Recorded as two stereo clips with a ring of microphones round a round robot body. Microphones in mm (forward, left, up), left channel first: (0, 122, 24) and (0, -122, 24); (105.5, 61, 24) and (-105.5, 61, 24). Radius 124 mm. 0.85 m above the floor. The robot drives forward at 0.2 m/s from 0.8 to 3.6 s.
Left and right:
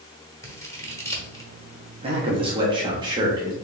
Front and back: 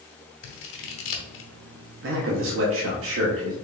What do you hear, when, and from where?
0.4 s scissors: 10° left, 0.9 m; by 1.5 s 15° left, 0.8 m
2.0 s a man speaking: 155° right, 0.8 m; by 3.5 s 165° right, 1.1 m